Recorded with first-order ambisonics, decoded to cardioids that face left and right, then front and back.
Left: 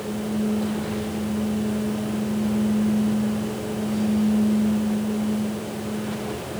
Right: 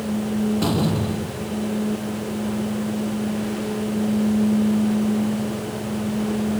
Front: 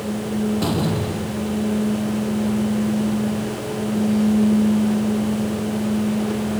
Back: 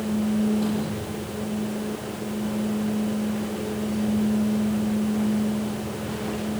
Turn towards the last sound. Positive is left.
turn(degrees=-50)